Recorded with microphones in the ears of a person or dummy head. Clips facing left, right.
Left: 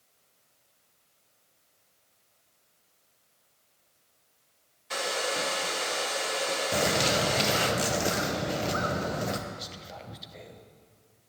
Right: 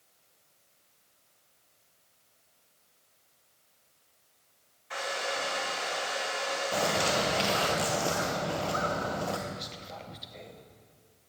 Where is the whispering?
5° left (ahead or behind), 0.6 m.